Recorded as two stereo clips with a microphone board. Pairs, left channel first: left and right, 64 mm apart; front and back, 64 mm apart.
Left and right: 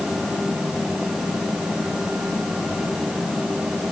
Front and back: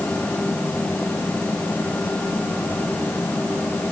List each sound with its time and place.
Only background noise.